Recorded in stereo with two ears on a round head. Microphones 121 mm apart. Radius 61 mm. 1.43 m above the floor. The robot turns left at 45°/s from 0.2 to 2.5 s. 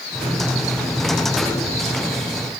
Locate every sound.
Only background noise.